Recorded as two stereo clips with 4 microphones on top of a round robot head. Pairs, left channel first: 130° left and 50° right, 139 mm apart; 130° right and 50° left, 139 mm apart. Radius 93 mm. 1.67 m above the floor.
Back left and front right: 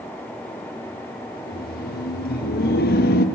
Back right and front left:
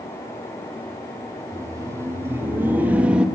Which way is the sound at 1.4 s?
120° left.